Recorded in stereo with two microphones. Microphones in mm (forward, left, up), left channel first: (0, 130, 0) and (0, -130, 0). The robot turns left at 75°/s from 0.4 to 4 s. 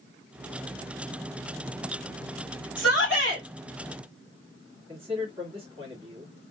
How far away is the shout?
About 1.6 m.